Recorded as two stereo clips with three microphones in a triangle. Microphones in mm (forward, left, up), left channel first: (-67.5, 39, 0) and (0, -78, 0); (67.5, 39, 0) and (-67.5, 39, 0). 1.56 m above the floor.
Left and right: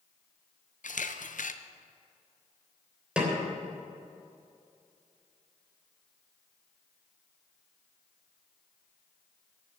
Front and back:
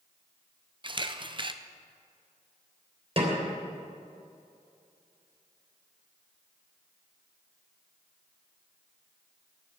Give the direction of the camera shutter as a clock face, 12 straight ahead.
8 o'clock.